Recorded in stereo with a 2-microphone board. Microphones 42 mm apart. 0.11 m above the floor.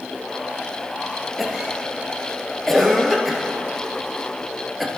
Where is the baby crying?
No baby crying in this recording.